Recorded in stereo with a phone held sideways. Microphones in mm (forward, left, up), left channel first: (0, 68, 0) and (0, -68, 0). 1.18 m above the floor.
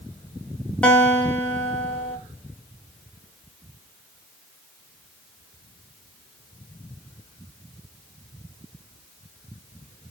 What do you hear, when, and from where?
0.8 s a guitar: 10° left (ahead or behind), 1.8 m